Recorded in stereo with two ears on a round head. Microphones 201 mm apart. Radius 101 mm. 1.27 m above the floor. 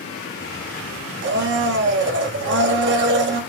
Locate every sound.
1.2 s a blender: 50° right (ahead or behind), 0.8 m